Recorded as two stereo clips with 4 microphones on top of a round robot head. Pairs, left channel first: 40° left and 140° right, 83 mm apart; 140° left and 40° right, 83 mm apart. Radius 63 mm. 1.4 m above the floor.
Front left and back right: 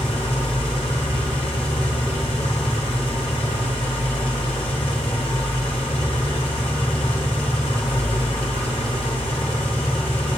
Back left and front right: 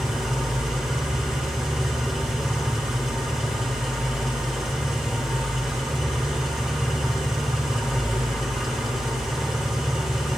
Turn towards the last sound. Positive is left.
turn(degrees=40)